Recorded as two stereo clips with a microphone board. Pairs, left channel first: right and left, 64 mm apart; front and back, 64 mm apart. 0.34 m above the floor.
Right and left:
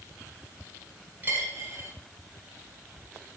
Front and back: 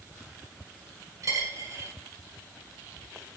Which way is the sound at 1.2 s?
150° left.